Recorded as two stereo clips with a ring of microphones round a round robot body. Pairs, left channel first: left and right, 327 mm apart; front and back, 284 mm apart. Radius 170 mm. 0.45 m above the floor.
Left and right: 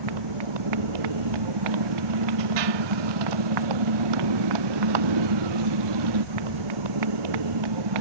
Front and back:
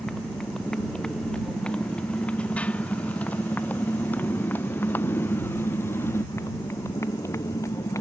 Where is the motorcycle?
90° right; by 8.0 s 80° right.